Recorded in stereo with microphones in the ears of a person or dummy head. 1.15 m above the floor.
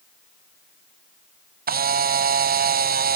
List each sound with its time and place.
1.7 s a camera shutter: 50° right (ahead or behind), 0.5 m